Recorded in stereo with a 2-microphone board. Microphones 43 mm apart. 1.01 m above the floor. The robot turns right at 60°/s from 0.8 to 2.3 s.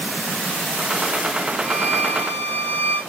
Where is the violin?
25° left, 7.5 m; by 3.0 s 65° left, 7.5 m.